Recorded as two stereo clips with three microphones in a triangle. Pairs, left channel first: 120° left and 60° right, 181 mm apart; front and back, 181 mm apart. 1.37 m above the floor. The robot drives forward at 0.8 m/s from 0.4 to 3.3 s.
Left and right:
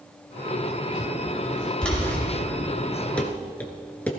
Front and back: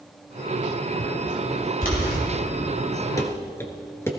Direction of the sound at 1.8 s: 35° left.